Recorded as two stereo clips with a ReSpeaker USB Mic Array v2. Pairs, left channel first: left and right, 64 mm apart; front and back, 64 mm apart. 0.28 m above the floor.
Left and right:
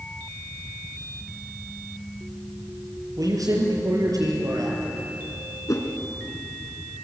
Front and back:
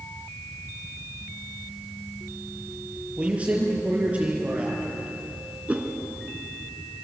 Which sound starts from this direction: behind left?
A whoosh, at 5.7 s.